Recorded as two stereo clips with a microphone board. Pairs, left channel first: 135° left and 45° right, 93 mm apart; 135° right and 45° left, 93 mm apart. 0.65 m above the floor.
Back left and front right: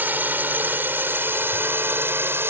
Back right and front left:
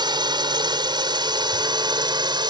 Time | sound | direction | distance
0.0 | a drone | 20° left | ?